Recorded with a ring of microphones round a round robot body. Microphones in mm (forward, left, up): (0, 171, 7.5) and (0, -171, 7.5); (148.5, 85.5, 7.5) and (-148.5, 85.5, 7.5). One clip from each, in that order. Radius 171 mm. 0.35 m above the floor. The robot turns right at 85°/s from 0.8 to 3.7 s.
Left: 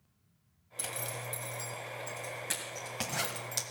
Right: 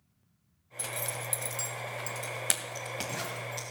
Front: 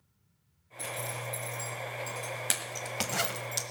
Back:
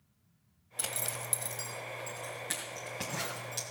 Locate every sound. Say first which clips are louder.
0.8 s a zipper: right 3 dB, front 1 dB; 170° left, 1.5 m; by 3.6 s 50° left, 1.5 m